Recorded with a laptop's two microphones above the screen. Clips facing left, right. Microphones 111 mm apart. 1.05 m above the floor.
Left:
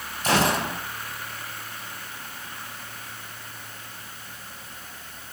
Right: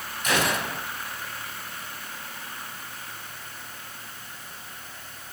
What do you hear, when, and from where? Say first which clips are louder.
0.2 s a gunshot: left 3 dB; 35° left (ahead or behind), 4 m